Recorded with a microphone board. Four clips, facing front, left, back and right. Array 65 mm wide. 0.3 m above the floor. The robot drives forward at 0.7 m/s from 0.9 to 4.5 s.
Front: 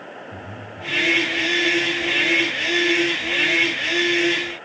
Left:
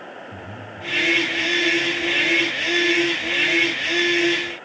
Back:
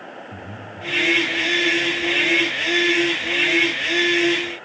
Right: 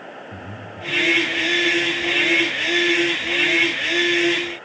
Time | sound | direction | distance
0.3 | breathing | 110° right | 2.5 m